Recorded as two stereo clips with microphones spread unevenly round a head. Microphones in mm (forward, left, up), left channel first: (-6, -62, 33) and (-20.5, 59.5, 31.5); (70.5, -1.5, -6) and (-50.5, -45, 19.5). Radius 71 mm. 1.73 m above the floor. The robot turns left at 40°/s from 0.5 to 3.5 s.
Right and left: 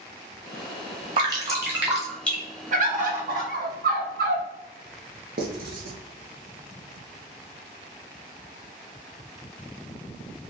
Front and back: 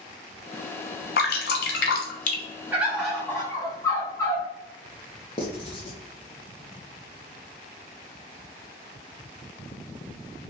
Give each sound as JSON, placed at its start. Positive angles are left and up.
{"t": 1.2, "sound": "dripping", "azimuth_deg": 40, "distance_m": 0.9}
{"t": 2.7, "sound": "a bird", "azimuth_deg": 125, "distance_m": 0.8}
{"t": 5.4, "sound": "writing", "azimuth_deg": 80, "distance_m": 0.9}